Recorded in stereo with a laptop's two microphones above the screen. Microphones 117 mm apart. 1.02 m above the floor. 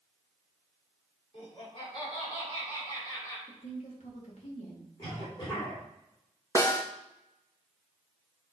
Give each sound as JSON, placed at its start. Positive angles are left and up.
{"t": 1.3, "sound": "laughter", "side_deg": 50, "distance_m": 3.5}
{"t": 3.5, "sound": "a woman speaking", "side_deg": 65, "distance_m": 2.0}
{"t": 5.0, "sound": "a cough", "side_deg": 40, "distance_m": 2.5}
{"t": 6.5, "sound": "a snare drum", "side_deg": 20, "distance_m": 1.3}